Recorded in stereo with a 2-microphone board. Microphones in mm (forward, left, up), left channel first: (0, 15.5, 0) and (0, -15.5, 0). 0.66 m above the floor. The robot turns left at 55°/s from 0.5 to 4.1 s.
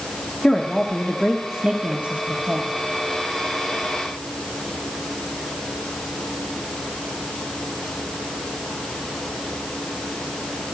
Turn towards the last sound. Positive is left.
turn(degrees=-170)